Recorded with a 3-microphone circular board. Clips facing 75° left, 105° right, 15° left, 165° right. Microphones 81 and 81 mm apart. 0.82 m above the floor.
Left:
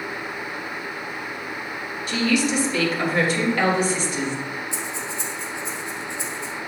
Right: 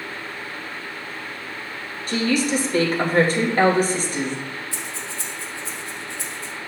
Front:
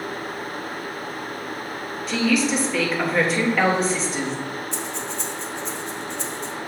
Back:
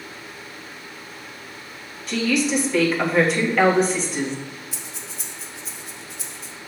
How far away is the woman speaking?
About 1.3 m.